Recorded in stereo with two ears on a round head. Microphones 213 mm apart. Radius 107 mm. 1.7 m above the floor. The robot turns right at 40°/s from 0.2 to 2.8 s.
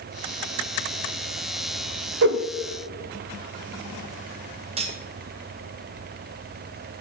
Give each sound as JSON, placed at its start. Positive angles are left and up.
{"t": 2.2, "sound": "a whoosh", "side_deg": -45, "distance_m": 0.6}
{"t": 4.8, "sound": "cutlery clinking", "side_deg": -25, "distance_m": 0.9}